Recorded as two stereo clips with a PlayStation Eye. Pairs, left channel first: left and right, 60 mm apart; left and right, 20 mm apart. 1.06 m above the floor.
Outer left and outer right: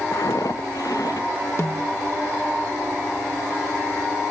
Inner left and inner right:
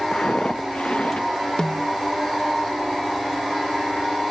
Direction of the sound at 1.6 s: 45° left (ahead or behind).